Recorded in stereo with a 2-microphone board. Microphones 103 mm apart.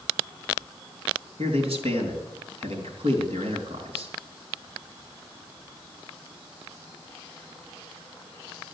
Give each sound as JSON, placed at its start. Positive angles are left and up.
{"t": 1.4, "sound": "a man speaking", "side_deg": -75, "distance_m": 4.0}